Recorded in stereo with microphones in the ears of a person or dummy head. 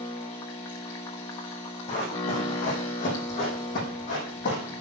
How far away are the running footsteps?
About 6 m.